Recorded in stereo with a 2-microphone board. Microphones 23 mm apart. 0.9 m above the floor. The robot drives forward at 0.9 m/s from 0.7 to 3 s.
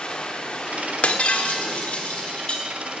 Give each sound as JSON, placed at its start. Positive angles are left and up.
{"t": 0.0, "sound": "running water", "side_deg": 45, "distance_m": 1.2}
{"t": 1.0, "sound": "breaking glass", "side_deg": 85, "distance_m": 1.4}